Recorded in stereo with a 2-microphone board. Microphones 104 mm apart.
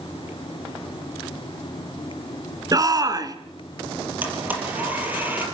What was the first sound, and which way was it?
A shout, 35° right (ahead or behind).